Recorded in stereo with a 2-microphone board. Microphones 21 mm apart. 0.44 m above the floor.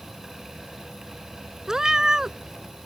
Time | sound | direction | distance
1.7 | a cat meowing | 30° right (ahead or behind) | ?